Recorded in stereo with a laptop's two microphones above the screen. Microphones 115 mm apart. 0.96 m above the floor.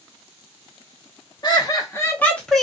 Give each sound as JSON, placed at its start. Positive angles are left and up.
{"t": 1.4, "sound": "laughter", "side_deg": 40, "distance_m": 1.1}